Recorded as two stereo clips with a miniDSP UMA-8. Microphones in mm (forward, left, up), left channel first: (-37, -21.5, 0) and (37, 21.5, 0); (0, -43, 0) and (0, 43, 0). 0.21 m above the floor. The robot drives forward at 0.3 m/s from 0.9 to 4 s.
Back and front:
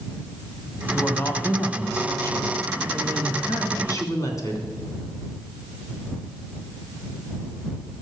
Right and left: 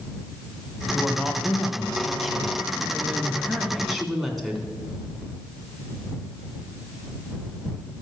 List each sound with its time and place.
0.9 s a woman speaking: straight behind, 1.6 m